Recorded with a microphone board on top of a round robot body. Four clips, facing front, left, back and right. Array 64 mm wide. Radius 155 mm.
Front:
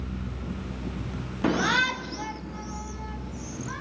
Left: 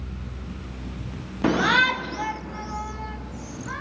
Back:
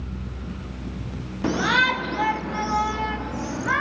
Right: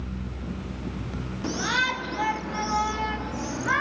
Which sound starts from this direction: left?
A shout, at 1.4 s.